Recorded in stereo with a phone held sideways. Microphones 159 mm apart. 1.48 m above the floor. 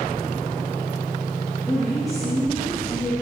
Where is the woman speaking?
Centre (ahead or behind), 2.0 m.